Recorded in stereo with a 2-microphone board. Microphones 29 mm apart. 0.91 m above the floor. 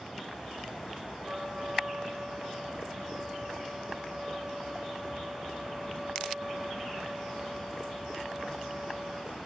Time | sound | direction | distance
1.2 | a trumpet | 35° right (ahead or behind) | 8 m